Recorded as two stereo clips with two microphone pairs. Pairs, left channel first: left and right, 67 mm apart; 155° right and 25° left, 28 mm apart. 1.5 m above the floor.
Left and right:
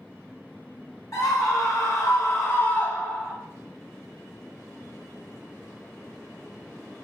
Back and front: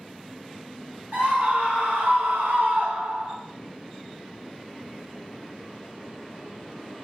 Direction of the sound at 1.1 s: 65° left.